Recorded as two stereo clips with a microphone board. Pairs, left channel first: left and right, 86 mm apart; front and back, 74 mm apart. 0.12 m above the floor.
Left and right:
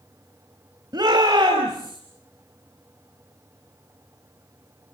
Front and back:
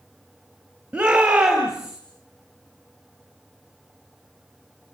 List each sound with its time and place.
0.9 s a shout: 105° right, 3 m; by 2.0 s 95° right, 3 m